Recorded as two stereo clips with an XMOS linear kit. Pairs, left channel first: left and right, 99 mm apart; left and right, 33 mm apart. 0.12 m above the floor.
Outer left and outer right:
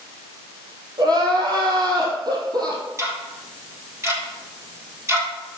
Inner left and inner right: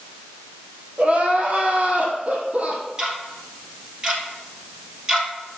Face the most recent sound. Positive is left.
turn(degrees=-30)  # may be behind; listen again after turning